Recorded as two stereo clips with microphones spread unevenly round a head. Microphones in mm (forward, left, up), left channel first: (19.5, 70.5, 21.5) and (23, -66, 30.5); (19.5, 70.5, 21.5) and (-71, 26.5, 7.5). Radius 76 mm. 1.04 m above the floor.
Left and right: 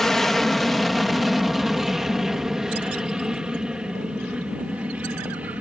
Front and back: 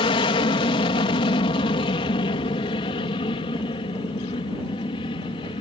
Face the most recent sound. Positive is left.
turn(degrees=-10)